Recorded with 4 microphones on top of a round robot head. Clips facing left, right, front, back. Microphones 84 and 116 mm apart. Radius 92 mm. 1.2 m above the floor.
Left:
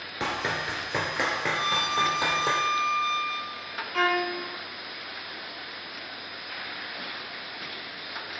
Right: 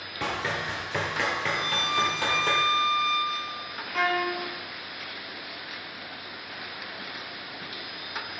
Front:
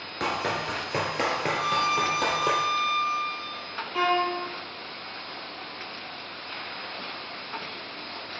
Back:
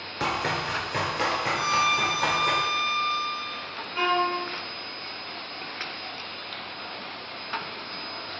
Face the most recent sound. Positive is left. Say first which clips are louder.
# left 1 dB, even
turn(degrees=0)